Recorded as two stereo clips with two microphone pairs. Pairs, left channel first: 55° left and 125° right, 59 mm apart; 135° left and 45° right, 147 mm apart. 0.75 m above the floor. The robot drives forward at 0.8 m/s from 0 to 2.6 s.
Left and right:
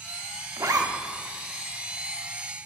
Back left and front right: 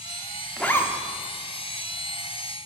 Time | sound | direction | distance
0.6 | a zipper | 140° right | 0.5 m